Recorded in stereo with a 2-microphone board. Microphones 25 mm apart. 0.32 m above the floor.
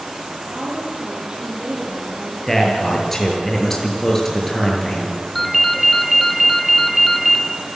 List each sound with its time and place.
0.5 s a woman speaking: 50° right (ahead or behind), 8.5 m
2.5 s a man speaking: 10° left (ahead or behind), 6.5 m
5.3 s a ringtone: 5° left (ahead or behind), 2 m